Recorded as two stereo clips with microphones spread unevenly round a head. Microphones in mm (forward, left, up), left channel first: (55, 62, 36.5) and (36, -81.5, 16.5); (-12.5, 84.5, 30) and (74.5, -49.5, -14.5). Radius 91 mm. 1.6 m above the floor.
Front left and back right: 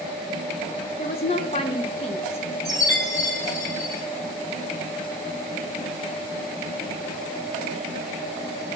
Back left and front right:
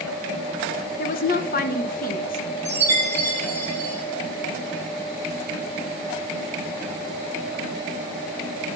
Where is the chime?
20° left, 7 m.